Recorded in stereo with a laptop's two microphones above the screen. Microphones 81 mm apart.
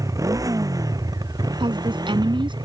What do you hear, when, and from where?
0.0 s a motorcycle: 45° right (ahead or behind); by 2.6 s 60° right (ahead or behind)
1.6 s a woman speaking: 85° right